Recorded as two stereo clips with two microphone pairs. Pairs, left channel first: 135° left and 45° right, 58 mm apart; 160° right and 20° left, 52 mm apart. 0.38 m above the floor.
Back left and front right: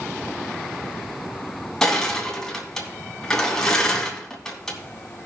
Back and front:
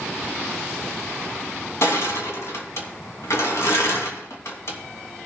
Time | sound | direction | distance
1.8 | crushing | 145° right | 2.5 m